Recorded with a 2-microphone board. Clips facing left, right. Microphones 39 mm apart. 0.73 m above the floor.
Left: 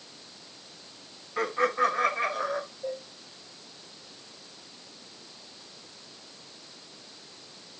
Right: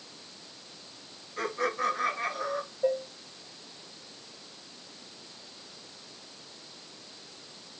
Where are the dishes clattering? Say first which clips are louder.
Right 7 dB; 65° right (ahead or behind), 2.5 m.